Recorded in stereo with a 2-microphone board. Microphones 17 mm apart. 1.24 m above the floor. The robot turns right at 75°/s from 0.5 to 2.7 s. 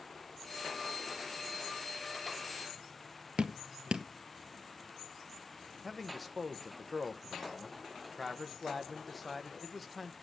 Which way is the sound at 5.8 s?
5° right (ahead or behind).